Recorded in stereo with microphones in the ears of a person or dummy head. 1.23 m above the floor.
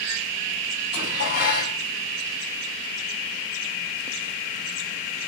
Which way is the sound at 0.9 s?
55° left (ahead or behind).